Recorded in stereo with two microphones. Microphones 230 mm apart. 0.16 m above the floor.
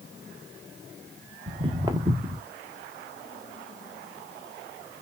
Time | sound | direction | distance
1.5 | footsteps | 20° right (ahead or behind) | 1.9 m